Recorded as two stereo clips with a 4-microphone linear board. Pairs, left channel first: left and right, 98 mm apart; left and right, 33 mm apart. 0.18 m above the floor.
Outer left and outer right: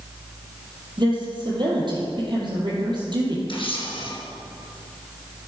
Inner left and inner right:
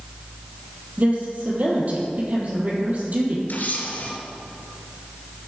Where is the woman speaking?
50° right (ahead or behind), 4 m.